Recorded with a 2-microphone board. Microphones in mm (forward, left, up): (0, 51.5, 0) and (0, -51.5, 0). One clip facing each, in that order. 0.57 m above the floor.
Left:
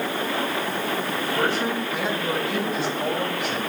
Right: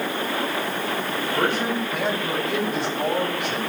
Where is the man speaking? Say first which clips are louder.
Right 1 dB; 50° right (ahead or behind), 3.5 m; by 3.6 s 60° right (ahead or behind), 4.5 m.